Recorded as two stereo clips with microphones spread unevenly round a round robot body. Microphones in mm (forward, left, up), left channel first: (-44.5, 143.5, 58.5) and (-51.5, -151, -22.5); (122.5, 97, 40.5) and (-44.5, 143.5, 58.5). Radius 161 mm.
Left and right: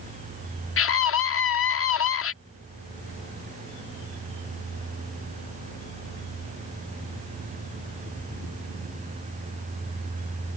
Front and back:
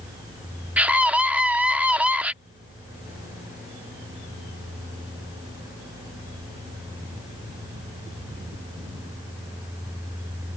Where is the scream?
80° left.